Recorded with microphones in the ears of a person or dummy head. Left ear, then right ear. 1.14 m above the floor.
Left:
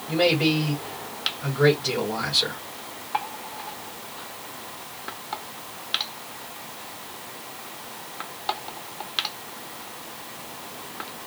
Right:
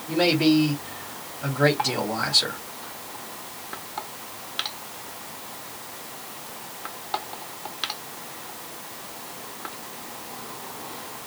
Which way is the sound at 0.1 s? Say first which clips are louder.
Right 1 dB; 20° right (ahead or behind).